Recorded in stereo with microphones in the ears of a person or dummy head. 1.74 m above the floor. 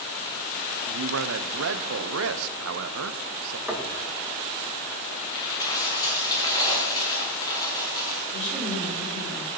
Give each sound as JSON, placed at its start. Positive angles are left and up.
{"t": 0.9, "sound": "a man speaking", "side_deg": -75, "distance_m": 1.0}
{"t": 3.7, "sound": "knocking", "side_deg": 0, "distance_m": 2.0}
{"t": 5.3, "sound": "a dropped coin", "side_deg": 25, "distance_m": 5.0}
{"t": 8.3, "sound": "a woman speaking", "side_deg": 50, "distance_m": 7.5}